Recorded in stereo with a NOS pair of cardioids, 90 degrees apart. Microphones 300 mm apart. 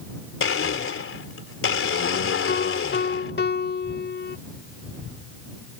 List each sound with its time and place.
0.4 s a blender: 45° left
2.5 s a piano: 35° left